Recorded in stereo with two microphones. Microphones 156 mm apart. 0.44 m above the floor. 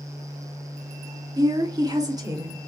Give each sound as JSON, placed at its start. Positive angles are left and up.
{"t": 1.4, "sound": "a woman speaking", "side_deg": -25, "distance_m": 0.8}